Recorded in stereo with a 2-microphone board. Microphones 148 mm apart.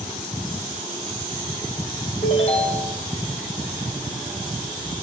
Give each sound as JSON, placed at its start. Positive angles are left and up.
{"t": 2.2, "sound": "a ringtone", "side_deg": 45, "distance_m": 4.0}